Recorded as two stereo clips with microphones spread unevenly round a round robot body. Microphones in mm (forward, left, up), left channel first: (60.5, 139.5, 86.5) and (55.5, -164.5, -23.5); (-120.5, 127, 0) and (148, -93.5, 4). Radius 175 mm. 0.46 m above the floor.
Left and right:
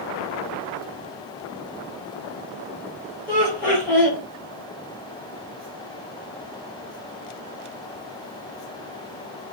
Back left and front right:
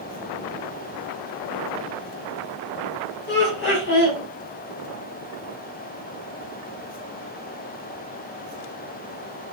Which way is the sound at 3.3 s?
170° right.